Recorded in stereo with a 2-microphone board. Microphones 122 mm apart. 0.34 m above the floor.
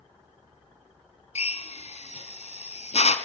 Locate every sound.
1.4 s a drill: 60° left (ahead or behind), 1.7 m